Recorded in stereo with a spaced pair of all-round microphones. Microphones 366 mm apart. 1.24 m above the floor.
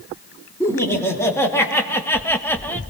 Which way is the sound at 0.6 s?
5° left (ahead or behind).